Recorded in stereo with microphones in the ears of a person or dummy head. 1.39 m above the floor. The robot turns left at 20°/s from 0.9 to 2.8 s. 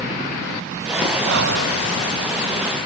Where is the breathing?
70° right (ahead or behind), 1.3 m; by 1.8 s 65° right (ahead or behind), 1.3 m.